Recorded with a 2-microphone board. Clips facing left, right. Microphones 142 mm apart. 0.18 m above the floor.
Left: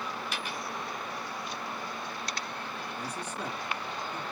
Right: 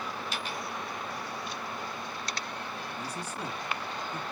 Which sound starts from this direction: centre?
A man speaking, at 3.0 s.